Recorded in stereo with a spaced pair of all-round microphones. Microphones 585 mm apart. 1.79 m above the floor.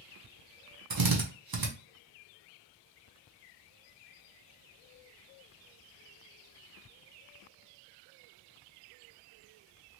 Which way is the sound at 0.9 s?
40° right (ahead or behind).